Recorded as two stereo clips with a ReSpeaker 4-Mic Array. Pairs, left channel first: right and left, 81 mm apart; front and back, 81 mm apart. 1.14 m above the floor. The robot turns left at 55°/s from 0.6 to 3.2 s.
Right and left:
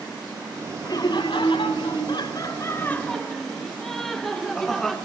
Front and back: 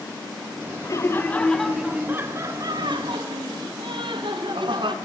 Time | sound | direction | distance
0.8 | laughter | 45° right | 0.6 m